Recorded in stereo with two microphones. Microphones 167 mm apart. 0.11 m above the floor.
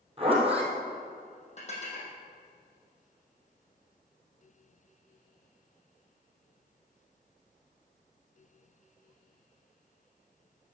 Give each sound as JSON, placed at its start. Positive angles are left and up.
{"t": 0.2, "sound": "a zipper", "side_deg": -35, "distance_m": 3.0}
{"t": 1.6, "sound": "dishes clattering", "side_deg": 40, "distance_m": 3.0}